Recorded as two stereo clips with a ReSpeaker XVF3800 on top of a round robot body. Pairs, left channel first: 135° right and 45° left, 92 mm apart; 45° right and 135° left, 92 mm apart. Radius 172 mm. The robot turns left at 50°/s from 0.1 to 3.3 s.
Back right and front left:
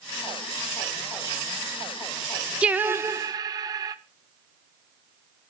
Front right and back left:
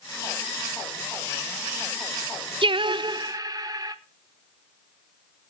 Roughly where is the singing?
Behind left.